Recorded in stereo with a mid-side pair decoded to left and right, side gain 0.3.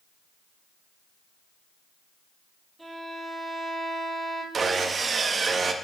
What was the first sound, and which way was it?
A violin, 15° right.